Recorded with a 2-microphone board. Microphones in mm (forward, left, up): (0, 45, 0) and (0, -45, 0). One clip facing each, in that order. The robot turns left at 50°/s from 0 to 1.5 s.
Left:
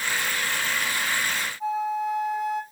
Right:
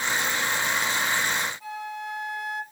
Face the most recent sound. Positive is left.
turn(degrees=40)  # may be behind; listen again after turning